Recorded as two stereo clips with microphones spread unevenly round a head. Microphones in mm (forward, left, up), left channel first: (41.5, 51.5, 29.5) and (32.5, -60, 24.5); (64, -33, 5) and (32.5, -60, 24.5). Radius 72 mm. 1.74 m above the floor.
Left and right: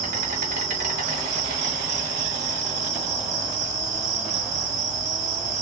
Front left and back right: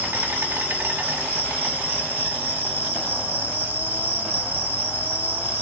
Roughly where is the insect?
Behind right.